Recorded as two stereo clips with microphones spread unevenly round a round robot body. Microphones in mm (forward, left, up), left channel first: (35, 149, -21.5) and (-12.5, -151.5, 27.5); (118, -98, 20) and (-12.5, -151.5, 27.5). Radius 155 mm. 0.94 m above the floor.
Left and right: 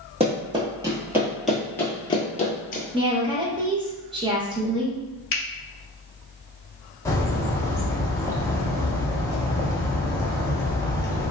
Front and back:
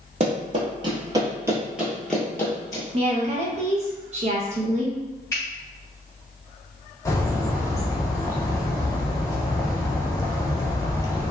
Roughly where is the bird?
Ahead left.